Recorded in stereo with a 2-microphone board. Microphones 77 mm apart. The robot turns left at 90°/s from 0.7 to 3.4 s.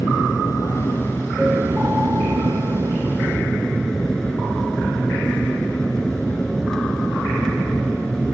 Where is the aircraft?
55° left; by 8.4 s 170° left.